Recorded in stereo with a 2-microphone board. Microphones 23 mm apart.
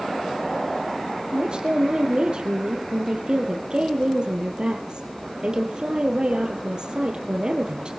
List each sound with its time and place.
1.3 s a woman speaking: 40° right (ahead or behind), 3 m